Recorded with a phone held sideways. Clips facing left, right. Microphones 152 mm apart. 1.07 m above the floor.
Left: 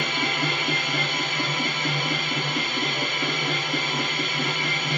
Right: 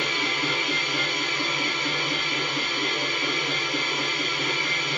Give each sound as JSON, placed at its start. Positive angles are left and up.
{"t": 0.0, "sound": "a machine running", "side_deg": 55, "distance_m": 1.3}